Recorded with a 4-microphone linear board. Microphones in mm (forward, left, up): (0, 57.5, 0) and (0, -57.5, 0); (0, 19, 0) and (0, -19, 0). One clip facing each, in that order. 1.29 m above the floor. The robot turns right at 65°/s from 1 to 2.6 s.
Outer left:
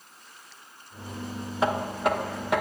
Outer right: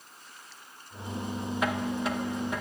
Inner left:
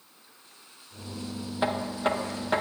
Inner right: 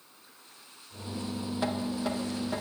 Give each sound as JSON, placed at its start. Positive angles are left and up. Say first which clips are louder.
{"t": 1.6, "sound": "knocking", "louder": "outer left 5 dB, inner left 5 dB", "azimuth_deg": 30, "distance_m": 0.8}